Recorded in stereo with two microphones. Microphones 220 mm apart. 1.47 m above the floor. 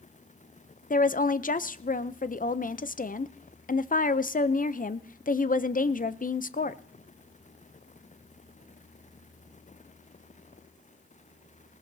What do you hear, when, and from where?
0.9 s a woman speaking: 40° left (ahead or behind), 0.5 m